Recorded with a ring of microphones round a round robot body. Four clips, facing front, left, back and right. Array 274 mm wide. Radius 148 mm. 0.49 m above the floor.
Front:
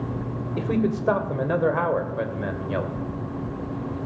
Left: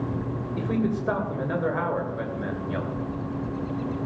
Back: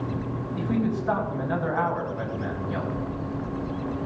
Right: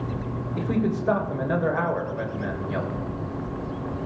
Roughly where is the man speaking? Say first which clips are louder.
Right 1 dB, front 3 dB; ahead.